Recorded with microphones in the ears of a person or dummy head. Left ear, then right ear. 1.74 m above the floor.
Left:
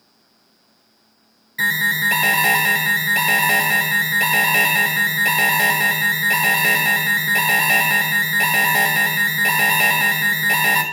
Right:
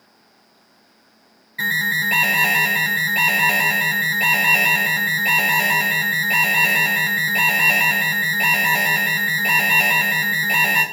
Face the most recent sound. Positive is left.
turn(degrees=10)  # may be behind; listen again after turning